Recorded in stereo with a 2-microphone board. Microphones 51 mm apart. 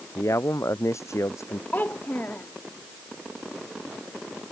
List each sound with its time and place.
0.1 s a man speaking: 80° left
1.7 s a child speaking: 35° left (ahead or behind)